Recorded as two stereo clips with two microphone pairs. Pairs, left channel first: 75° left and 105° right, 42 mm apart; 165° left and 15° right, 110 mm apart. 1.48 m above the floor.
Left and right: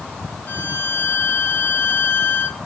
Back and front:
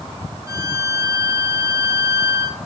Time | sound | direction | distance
0.5 | a violin | 40° left | 1.0 m